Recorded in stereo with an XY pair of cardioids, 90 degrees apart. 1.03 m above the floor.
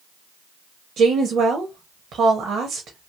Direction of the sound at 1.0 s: 70° right.